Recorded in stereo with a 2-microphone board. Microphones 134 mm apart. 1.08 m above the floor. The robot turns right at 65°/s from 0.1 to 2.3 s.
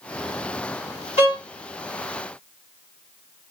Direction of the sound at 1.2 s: 50° left (ahead or behind).